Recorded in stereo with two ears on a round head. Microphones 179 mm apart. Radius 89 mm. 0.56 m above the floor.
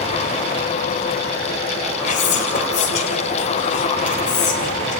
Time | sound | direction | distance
2.0 | whispering | 35° left (ahead or behind) | 2.5 m